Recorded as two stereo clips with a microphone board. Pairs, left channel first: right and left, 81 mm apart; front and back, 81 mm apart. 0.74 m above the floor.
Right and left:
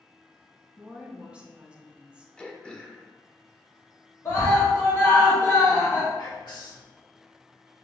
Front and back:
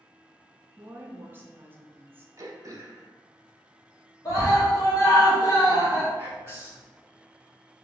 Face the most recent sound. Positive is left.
turn(degrees=-120)